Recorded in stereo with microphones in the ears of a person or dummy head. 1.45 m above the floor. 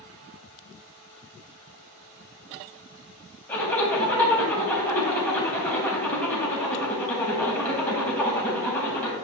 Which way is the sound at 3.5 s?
15° left (ahead or behind).